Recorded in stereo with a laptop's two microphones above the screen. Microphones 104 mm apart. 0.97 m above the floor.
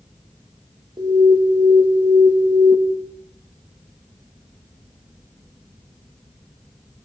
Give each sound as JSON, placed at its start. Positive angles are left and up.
{"t": 1.0, "sound": "an alarm", "side_deg": -40, "distance_m": 1.6}